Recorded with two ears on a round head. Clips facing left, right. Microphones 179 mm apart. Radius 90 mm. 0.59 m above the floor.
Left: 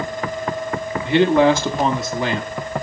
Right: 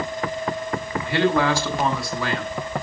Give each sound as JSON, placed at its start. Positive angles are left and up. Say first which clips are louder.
{"t": 1.1, "sound": "a man speaking", "louder": "left 6 dB", "side_deg": 20, "distance_m": 0.8}